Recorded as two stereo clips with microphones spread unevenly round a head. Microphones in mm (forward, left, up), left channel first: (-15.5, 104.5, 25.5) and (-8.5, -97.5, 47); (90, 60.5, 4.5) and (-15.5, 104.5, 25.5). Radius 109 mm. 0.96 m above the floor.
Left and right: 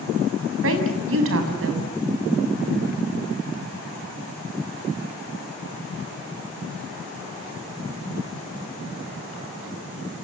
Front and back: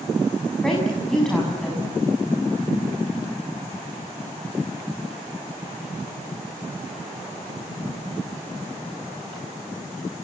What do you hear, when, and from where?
0.6 s a woman speaking: 110° right, 6 m